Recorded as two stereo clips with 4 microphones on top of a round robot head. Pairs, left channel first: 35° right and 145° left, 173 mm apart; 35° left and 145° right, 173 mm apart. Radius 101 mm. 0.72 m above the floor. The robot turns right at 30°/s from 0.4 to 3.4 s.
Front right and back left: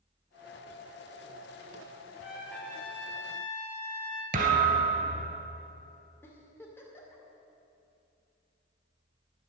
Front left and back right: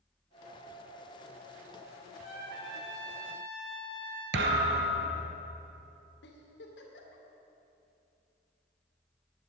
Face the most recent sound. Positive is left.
turn(degrees=40)